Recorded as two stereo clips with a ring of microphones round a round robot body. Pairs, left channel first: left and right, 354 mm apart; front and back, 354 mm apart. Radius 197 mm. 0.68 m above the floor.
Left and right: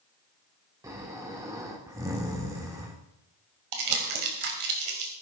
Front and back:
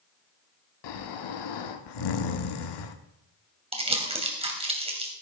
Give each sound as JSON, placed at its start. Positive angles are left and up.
{"t": 0.8, "sound": "snoring", "azimuth_deg": -10, "distance_m": 1.1}
{"t": 3.7, "sound": "crumpling", "azimuth_deg": -105, "distance_m": 2.5}